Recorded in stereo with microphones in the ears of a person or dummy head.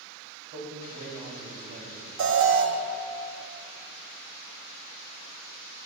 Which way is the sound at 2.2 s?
70° right (ahead or behind).